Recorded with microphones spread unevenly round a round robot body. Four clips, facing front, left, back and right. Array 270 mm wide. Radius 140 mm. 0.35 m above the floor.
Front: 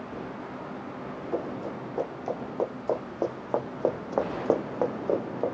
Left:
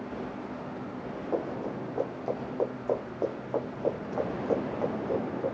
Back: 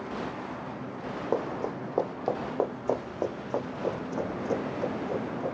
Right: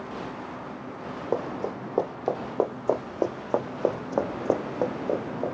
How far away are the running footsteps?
About 1.5 m.